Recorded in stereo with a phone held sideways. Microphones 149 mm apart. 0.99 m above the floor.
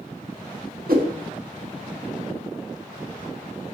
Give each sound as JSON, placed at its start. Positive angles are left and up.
{"t": 0.9, "sound": "a whoosh", "side_deg": -80, "distance_m": 1.7}